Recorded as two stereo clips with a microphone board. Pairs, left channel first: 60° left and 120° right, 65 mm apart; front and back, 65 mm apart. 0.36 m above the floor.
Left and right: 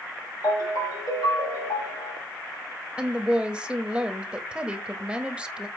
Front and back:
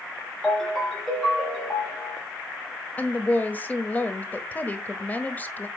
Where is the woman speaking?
50° right, 1.2 m.